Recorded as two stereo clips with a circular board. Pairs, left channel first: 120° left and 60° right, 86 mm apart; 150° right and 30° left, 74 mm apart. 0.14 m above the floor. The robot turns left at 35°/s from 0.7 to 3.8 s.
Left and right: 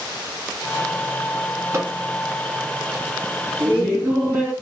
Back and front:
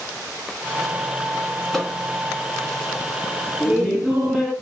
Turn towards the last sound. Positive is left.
turn(degrees=-50)